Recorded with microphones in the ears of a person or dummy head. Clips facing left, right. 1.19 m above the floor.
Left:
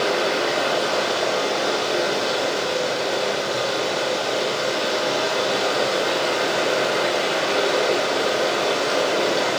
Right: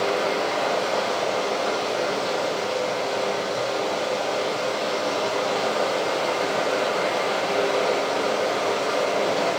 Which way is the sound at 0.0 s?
10° left (ahead or behind).